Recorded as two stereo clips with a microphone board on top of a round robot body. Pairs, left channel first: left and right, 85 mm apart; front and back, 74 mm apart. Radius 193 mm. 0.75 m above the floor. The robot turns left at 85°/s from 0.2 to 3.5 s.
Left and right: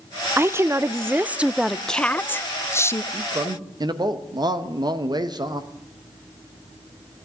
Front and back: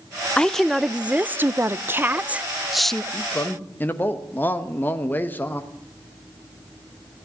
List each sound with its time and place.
0.4 s a woman speaking: 65° right, 0.7 m; by 3.0 s 70° left, 0.7 m
3.1 s a man speaking: 30° right, 1.3 m; by 5.7 s 65° right, 1.3 m